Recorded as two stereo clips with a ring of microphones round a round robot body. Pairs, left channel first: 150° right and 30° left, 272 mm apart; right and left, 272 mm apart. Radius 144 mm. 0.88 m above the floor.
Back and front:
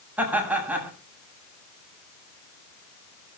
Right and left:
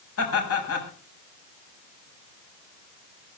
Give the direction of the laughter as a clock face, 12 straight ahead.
2 o'clock.